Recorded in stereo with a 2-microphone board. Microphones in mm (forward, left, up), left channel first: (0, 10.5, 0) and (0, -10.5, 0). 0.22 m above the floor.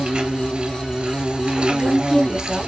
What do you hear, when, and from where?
0.0 s an insect: 55° right (ahead or behind), 0.8 m
1.7 s a woman speaking: 20° right (ahead or behind), 1.5 m